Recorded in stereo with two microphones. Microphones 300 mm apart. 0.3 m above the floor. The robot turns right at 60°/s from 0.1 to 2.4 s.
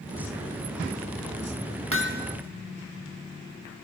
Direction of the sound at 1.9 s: 45° right (ahead or behind).